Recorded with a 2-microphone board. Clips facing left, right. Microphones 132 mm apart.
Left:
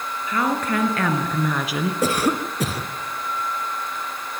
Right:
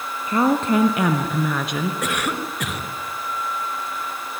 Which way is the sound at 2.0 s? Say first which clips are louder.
Left 4 dB; 30° left (ahead or behind).